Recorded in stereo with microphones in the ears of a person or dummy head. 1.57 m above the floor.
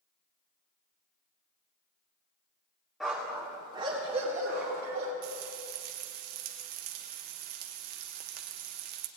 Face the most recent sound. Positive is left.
turn(degrees=-50)  # may be behind; listen again after turning